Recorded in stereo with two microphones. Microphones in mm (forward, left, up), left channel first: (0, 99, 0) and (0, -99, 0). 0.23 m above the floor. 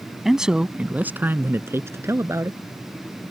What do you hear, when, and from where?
0.2 s a man speaking: centre (ahead or behind); by 2.6 s 15° right (ahead or behind)